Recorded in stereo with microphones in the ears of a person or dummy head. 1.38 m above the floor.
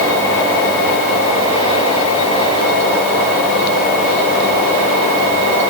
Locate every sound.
Only background noise.